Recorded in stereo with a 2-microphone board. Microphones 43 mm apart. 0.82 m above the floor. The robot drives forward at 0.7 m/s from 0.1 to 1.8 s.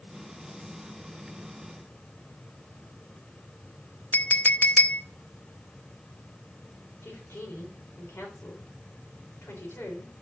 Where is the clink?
45° left (ahead or behind), 0.5 m.